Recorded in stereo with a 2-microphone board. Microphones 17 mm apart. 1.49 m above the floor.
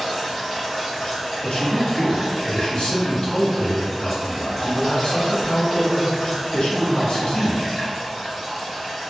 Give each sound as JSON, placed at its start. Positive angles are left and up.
{"t": 0.0, "sound": "running water", "side_deg": 5, "distance_m": 1.4}
{"t": 1.4, "sound": "a man speaking", "side_deg": 55, "distance_m": 0.8}